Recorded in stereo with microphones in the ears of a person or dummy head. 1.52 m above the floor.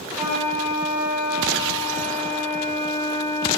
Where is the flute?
15° right (ahead or behind), 2.5 m.